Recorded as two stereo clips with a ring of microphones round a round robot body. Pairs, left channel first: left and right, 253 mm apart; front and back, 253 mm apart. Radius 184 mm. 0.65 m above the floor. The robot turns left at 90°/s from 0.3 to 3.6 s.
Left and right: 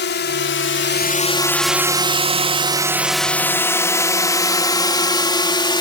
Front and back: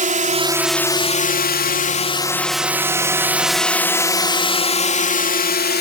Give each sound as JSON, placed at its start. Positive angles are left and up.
{"t": 0.0, "sound": "a drone", "azimuth_deg": 130}